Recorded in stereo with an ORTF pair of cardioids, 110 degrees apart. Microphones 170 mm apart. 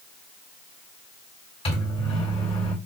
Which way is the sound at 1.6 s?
35° left.